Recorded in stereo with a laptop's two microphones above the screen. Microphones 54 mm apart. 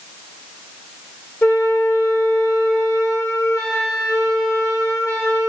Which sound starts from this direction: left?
A flute, at 1.4 s.